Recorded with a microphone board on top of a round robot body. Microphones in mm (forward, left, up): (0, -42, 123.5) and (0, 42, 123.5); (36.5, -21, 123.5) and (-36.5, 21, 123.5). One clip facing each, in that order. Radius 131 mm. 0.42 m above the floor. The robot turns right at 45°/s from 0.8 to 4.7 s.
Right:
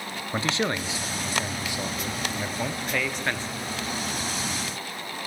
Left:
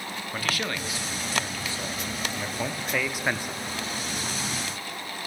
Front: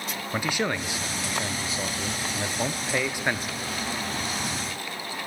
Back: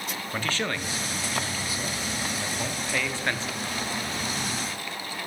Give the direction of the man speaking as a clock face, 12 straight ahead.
3 o'clock.